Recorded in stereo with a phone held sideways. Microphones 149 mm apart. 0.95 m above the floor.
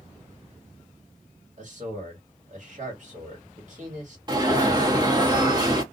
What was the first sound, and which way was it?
A man speaking, 60° right (ahead or behind).